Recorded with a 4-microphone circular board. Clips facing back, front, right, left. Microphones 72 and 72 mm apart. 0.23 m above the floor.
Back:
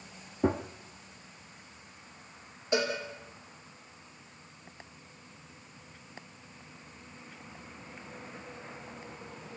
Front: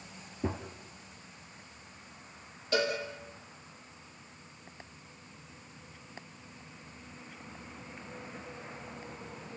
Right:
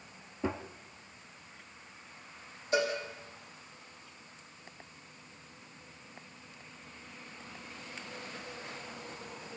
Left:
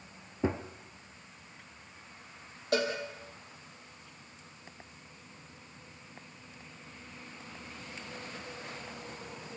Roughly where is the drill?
No drill in this recording.